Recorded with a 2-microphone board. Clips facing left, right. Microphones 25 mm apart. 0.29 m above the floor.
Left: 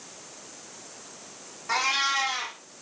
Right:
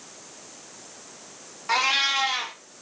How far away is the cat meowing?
About 1.6 m.